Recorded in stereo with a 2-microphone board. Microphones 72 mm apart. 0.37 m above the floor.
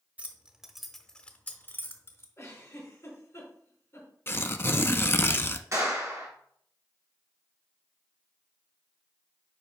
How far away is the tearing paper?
About 0.6 m.